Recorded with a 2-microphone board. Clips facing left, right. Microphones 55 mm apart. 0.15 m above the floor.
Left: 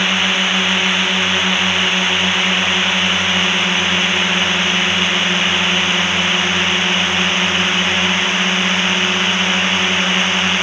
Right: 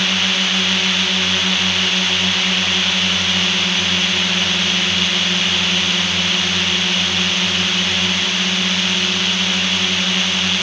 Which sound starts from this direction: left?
A drone, at 0.0 s.